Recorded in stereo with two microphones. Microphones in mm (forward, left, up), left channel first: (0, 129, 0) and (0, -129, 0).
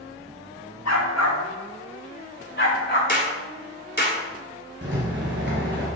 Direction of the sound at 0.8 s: 80° left.